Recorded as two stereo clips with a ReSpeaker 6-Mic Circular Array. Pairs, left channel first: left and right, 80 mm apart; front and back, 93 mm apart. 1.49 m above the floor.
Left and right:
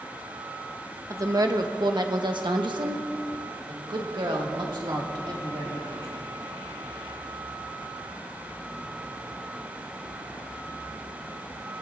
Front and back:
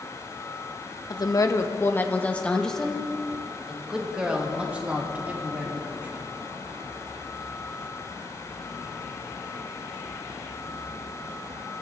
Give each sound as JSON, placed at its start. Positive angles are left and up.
{"t": 1.1, "sound": "a woman speaking", "azimuth_deg": -40, "distance_m": 1.0}